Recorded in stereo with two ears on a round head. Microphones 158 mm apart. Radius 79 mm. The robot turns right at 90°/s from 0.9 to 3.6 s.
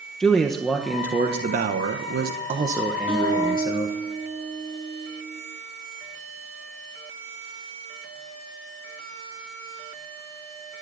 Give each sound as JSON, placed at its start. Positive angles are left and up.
{"t": 0.2, "sound": "a man speaking", "azimuth_deg": 180, "distance_m": 1.2}
{"t": 3.1, "sound": "a guitar", "azimuth_deg": -10, "distance_m": 9.0}